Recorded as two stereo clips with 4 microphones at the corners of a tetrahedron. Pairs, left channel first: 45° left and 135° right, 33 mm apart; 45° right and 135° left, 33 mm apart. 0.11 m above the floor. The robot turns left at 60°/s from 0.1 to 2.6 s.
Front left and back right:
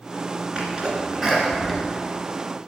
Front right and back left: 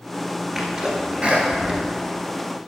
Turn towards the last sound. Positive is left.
turn(degrees=75)